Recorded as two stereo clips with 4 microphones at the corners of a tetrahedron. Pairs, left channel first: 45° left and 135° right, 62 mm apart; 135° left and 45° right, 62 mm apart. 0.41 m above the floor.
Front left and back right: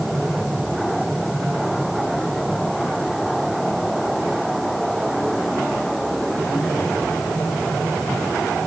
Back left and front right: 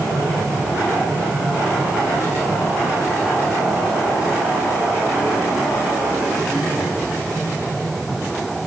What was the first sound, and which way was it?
Only background noise.